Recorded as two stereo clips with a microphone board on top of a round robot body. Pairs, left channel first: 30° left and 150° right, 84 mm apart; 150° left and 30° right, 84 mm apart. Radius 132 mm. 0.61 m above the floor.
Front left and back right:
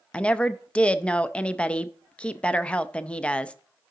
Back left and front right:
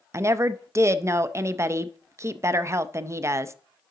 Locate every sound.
0.1 s a woman speaking: 35° right, 0.6 m